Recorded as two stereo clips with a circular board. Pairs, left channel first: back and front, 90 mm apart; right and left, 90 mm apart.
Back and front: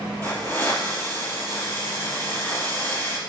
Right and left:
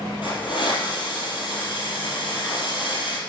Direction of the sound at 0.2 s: 115° right.